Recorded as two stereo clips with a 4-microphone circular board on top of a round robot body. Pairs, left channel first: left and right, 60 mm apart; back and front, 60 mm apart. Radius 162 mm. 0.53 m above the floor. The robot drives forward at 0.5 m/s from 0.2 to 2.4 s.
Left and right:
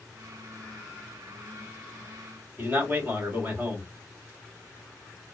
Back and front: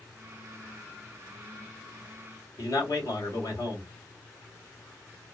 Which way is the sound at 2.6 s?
155° right.